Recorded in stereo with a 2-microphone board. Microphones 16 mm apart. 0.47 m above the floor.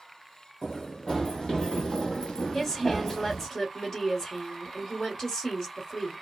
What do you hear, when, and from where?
0.6 s running footsteps: 55° left (ahead or behind), 1.2 m; by 3.5 s 35° left (ahead or behind), 1.2 m
2.5 s a woman speaking: 45° left (ahead or behind), 1.6 m